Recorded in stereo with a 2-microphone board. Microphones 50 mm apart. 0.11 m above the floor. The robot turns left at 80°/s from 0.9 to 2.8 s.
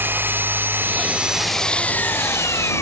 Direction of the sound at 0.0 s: 135° right.